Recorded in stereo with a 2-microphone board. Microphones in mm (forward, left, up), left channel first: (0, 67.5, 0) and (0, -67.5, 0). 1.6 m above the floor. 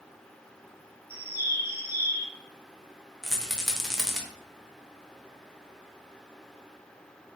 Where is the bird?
15° right (ahead or behind), 0.6 m.